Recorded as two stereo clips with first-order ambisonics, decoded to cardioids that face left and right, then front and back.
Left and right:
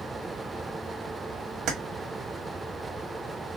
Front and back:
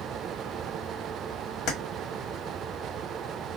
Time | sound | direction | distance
1.7 | keys jangling | 40° right | 0.9 m